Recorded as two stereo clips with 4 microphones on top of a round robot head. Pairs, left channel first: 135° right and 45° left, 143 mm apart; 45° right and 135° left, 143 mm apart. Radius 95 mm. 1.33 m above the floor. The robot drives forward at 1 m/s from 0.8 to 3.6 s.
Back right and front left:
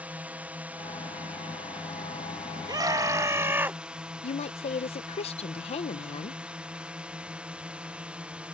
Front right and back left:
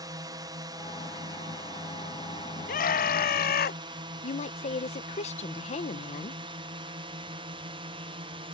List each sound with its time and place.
0.0 s a drone: 115° left; by 8.5 s 120° left
2.7 s a scream: 20° right; by 3.8 s 35° right
4.2 s a woman speaking: 90° right